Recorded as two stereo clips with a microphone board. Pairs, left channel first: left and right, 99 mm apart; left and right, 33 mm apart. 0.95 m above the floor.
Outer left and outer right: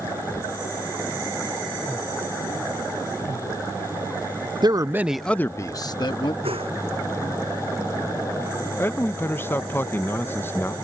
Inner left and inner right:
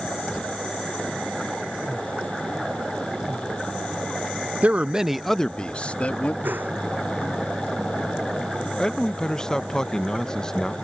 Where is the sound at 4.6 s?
45° right (ahead or behind); by 6.3 s 55° left (ahead or behind).